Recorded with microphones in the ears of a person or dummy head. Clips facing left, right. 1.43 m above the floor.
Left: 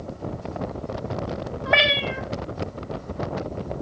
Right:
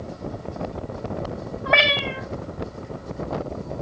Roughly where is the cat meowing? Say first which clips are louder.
Right 1 dB; centre.